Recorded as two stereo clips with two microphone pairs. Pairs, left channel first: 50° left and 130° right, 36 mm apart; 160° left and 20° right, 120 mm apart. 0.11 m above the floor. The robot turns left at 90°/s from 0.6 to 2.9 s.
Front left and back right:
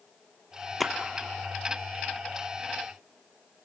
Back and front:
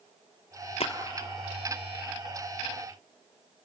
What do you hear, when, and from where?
0.8 s a splash: 140° left, 1.2 m; by 0.9 s 130° left, 1.2 m